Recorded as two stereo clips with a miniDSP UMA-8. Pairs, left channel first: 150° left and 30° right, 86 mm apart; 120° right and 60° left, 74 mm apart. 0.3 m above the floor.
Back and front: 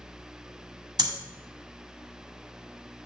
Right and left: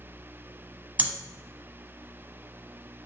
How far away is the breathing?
About 1.3 m.